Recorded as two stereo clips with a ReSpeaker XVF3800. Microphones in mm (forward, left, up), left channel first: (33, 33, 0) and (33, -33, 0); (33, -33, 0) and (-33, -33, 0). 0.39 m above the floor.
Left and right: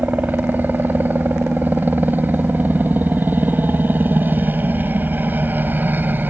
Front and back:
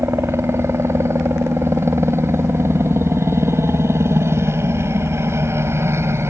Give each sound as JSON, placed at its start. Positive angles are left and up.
{"t": 0.0, "sound": "a helicopter", "azimuth_deg": -145}